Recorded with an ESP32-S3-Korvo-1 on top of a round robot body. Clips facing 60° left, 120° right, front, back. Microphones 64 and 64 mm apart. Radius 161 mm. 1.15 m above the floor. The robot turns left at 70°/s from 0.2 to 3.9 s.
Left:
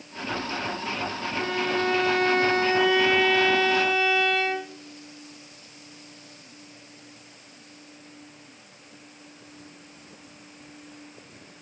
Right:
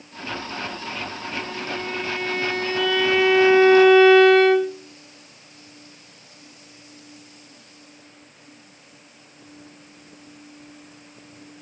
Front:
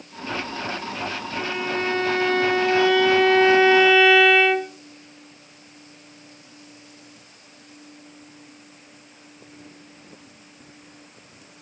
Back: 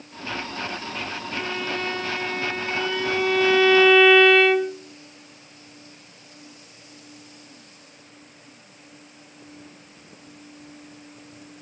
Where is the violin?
90° left, 1.6 m; by 4.7 s 85° right, 1.6 m.